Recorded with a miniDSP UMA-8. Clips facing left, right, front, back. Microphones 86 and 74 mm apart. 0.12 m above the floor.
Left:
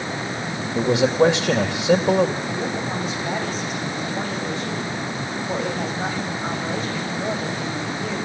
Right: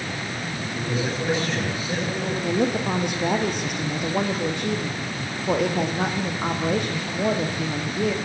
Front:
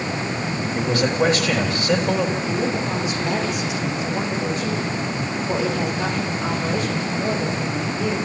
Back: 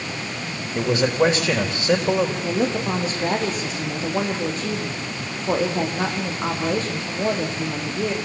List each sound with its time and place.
0.8 s a man speaking: 105° left, 4 m
2.4 s a woman speaking: 125° right, 6 m